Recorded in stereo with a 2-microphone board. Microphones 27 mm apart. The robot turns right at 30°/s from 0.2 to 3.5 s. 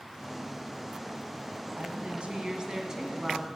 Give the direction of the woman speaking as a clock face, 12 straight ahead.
2 o'clock.